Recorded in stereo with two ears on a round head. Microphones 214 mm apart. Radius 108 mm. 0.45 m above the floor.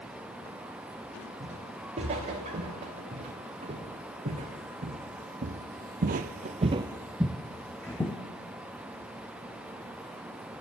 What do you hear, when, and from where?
1.4 s footsteps: 25° right (ahead or behind), 4 m; by 8.2 s 10° left (ahead or behind), 1.3 m